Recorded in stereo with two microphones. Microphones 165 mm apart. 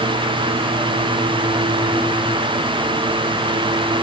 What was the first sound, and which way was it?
Only background noise.